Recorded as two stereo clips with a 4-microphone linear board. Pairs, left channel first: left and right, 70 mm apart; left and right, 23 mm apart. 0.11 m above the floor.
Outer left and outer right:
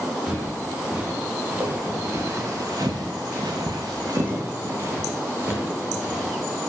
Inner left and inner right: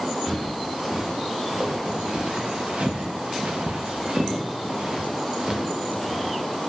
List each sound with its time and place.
0.3 s footsteps: 15° right (ahead or behind), 1.9 m; by 6.4 s 25° right (ahead or behind), 2.0 m